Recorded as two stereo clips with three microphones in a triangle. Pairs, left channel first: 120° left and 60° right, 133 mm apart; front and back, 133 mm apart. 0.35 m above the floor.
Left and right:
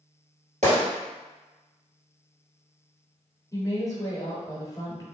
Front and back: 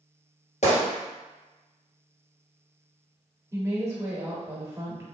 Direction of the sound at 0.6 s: 35° right.